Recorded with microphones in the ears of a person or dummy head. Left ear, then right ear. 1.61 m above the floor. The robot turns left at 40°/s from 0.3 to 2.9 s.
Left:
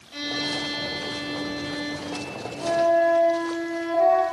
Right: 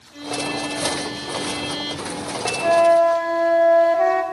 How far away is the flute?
About 1.2 m.